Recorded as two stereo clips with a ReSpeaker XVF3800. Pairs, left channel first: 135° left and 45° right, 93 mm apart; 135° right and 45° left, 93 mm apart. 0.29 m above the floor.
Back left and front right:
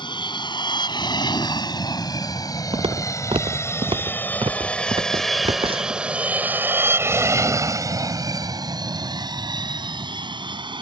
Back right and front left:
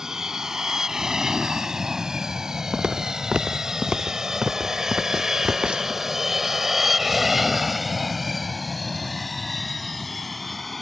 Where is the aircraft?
130° left; by 10.8 s 45° right.